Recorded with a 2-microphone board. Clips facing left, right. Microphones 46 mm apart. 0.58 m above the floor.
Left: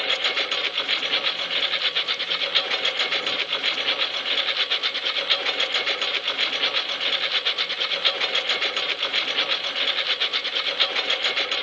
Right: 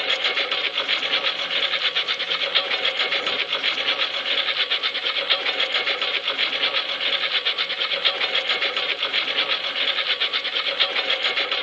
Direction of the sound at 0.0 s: 10° right (ahead or behind).